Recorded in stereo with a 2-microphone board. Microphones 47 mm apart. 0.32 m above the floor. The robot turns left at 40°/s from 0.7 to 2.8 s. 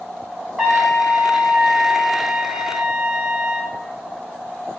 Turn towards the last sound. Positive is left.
turn(degrees=-20)  # may be behind; listen again after turning